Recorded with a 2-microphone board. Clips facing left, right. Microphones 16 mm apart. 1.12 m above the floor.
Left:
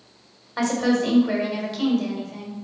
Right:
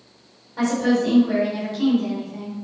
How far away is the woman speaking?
About 1.4 m.